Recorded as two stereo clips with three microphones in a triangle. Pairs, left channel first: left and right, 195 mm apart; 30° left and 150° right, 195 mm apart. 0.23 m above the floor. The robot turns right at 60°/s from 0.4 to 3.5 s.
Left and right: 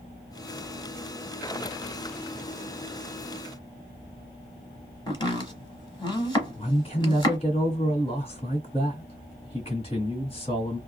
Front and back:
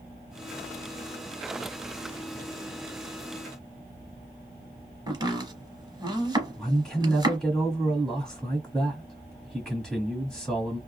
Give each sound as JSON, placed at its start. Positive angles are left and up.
{"t": 5.1, "sound": "chopping", "azimuth_deg": 150, "distance_m": 0.9}
{"t": 6.6, "sound": "a man speaking", "azimuth_deg": 115, "distance_m": 1.4}